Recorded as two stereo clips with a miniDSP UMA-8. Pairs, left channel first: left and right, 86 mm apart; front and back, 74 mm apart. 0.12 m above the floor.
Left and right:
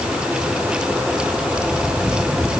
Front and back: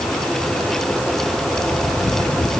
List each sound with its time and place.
Only background noise.